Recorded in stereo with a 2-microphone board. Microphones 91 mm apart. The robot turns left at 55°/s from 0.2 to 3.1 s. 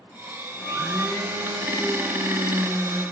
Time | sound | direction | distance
0.6 | a blender | 5° left | 2.0 m